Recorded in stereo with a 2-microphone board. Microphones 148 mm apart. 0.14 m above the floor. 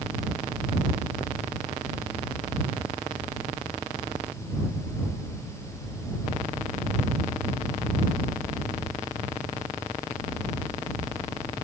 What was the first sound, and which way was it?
Only background noise.